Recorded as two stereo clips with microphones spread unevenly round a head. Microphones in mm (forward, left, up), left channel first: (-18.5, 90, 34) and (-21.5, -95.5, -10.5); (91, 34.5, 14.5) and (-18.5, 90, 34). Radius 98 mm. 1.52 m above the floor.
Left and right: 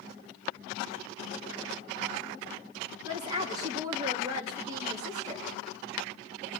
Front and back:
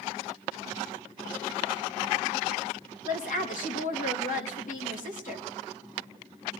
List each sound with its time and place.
3.0 s a woman speaking: 15° right, 3 m